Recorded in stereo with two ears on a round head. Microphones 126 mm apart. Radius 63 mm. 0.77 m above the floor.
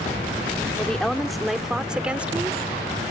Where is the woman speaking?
5° left (ahead or behind); by 2.6 s 15° right (ahead or behind).